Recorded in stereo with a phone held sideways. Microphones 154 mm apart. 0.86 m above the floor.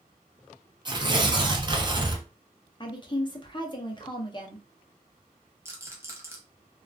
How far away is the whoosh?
I don't hear a whoosh.